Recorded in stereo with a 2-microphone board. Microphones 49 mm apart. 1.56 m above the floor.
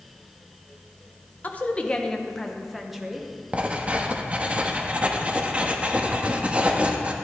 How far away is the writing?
About 1.0 m.